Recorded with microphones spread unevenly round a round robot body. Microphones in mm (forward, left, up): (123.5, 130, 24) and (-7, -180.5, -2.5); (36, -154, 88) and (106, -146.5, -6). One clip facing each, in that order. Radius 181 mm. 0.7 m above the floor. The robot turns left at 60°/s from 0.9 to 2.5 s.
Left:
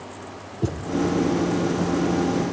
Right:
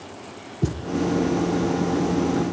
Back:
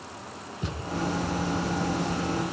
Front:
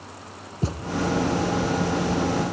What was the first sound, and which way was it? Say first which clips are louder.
A thud: even, front 7 dB; 40° right.